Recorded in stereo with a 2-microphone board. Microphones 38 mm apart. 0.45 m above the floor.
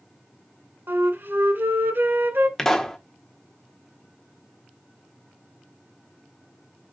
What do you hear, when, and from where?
0.9 s a flute: 80° right, 1.2 m
2.6 s a pop: 10° left (ahead or behind), 1.3 m